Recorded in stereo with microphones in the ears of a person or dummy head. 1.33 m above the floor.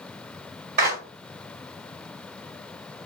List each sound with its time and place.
0.8 s a clap: 60° right (ahead or behind), 2 m